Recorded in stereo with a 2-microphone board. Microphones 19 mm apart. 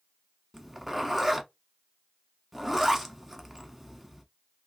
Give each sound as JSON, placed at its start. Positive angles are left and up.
{"t": 0.5, "sound": "a zipper", "side_deg": -10, "distance_m": 0.6}